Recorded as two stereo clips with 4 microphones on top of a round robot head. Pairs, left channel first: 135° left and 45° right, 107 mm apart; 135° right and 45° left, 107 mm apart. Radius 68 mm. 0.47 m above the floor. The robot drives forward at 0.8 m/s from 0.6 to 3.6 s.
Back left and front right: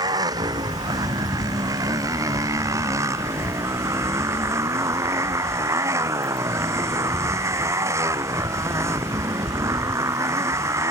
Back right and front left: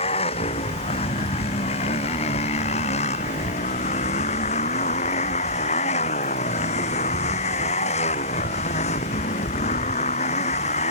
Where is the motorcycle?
100° right; by 10.9 s 110° right.